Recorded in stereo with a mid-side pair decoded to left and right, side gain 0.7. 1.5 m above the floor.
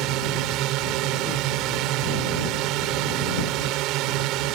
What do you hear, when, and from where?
0.0 s a drone: 60° right